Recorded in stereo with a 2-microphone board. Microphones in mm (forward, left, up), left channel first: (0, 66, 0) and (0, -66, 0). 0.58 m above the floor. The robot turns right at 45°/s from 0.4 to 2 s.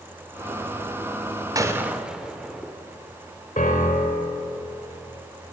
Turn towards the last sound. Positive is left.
turn(degrees=80)